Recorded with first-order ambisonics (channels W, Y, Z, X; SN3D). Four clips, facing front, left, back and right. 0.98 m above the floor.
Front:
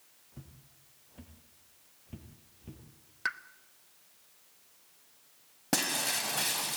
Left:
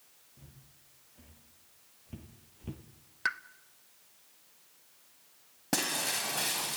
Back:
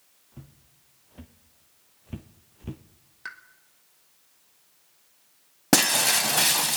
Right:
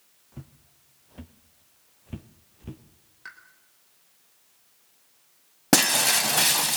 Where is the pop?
60° left, 1.0 m.